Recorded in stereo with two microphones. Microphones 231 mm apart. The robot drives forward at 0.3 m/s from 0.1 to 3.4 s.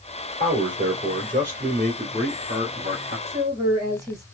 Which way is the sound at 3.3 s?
15° right (ahead or behind).